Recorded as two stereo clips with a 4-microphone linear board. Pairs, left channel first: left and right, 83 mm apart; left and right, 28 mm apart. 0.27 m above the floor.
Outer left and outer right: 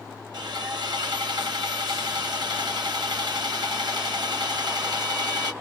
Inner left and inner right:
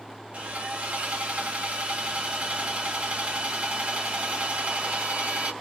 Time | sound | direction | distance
0.3 | sawing | 55° right (ahead or behind) | 3 m